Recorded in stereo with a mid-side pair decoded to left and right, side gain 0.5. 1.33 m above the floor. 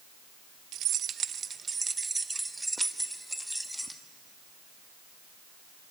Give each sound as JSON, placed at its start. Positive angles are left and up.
{"t": 0.7, "sound": "keys jangling", "azimuth_deg": -65, "distance_m": 0.8}